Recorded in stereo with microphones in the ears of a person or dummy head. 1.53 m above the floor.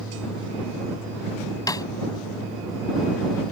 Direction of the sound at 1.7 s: 15° left (ahead or behind).